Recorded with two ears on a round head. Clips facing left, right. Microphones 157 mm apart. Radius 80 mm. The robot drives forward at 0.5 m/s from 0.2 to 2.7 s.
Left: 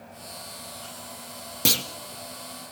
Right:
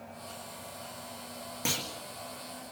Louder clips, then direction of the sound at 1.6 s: Left 7 dB; 45° left (ahead or behind).